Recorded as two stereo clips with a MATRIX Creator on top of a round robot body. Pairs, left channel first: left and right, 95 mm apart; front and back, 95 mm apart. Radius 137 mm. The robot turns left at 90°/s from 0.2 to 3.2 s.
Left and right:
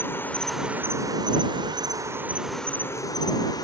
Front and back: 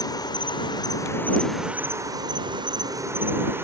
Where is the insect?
30° left; by 3.6 s 120° left.